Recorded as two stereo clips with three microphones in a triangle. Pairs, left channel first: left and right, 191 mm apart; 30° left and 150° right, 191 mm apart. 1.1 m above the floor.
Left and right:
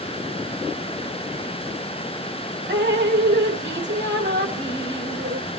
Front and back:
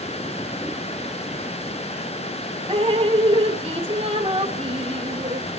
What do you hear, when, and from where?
2.7 s dripping: 90° right, 1.5 m